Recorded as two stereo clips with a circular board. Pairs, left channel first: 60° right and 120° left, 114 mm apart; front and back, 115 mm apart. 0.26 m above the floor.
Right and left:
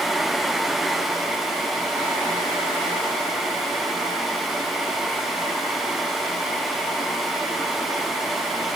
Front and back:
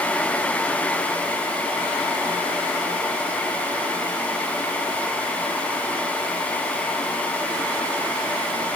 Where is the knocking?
No knocking in this recording.